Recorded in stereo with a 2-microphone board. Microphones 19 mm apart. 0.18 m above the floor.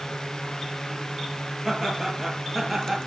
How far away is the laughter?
About 4.5 m.